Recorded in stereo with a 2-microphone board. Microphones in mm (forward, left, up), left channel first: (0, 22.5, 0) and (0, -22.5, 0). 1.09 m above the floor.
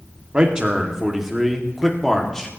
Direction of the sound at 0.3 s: 15° right (ahead or behind).